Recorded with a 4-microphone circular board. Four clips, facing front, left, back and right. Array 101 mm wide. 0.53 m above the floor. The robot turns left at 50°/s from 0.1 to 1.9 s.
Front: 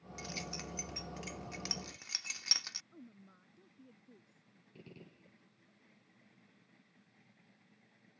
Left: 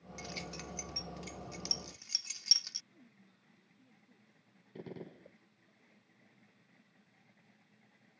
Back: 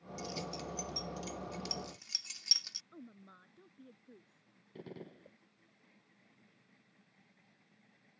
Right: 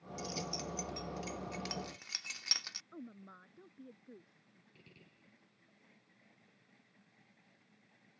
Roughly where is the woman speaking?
Right.